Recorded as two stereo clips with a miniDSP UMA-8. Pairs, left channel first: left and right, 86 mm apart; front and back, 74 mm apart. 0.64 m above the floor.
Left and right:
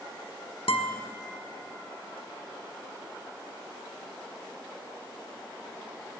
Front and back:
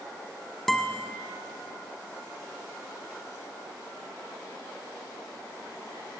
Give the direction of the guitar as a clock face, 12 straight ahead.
9 o'clock.